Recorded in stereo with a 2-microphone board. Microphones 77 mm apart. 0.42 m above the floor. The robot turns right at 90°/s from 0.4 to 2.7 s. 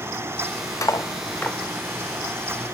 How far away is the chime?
I don't hear a chime.